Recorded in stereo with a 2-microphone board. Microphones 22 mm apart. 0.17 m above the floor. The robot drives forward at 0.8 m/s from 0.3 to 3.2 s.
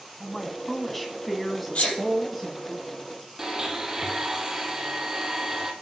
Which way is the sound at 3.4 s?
20° right (ahead or behind).